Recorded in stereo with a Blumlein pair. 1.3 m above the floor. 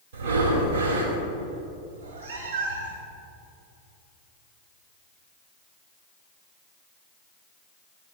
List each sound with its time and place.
0.1 s breathing: 60° right, 3.5 m
1.9 s a cat meowing: 60° right, 3 m